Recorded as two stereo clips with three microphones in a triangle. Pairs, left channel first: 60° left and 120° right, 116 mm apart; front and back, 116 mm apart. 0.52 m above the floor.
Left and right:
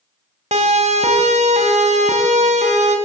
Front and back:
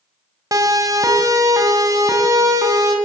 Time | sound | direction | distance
0.5 | a siren | 125° right | 2.5 m